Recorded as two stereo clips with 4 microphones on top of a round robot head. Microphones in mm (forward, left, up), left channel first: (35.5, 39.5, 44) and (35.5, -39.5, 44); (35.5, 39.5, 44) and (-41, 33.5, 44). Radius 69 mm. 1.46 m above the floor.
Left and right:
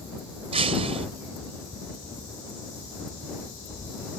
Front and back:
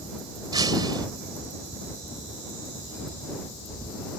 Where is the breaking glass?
115° right.